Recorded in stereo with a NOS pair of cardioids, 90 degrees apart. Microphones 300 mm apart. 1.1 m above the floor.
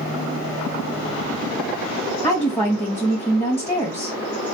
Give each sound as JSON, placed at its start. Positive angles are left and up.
{"t": 2.2, "sound": "a woman speaking", "azimuth_deg": 5, "distance_m": 0.9}